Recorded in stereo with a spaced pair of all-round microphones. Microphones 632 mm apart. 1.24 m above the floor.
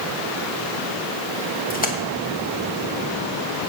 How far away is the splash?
About 1.3 m.